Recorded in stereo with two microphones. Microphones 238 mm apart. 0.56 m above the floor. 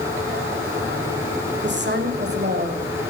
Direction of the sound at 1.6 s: 50° right (ahead or behind).